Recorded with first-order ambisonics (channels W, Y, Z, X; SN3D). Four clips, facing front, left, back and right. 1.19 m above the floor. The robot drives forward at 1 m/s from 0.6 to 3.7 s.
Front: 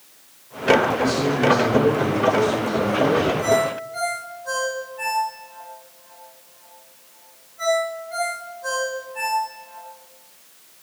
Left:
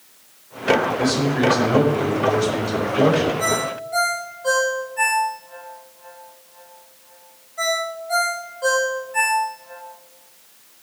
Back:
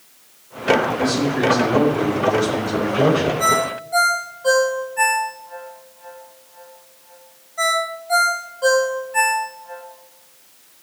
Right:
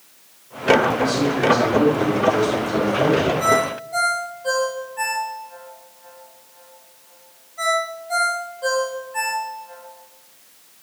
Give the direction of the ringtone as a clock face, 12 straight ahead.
7 o'clock.